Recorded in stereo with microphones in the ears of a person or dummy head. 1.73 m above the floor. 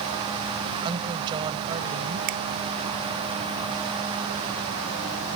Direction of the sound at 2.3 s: 50° right (ahead or behind).